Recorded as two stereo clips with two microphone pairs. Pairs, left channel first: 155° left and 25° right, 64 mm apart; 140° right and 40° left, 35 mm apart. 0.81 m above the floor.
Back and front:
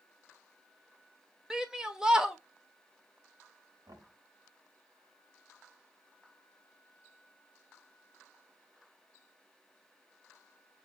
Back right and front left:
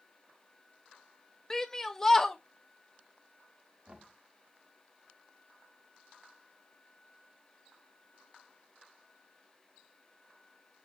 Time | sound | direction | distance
1.5 | a shout | 90° right | 0.6 m
3.9 | knocking | 10° right | 1.5 m